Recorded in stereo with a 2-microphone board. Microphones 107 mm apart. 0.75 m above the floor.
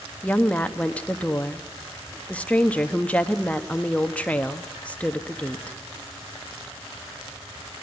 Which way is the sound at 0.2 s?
10° left (ahead or behind).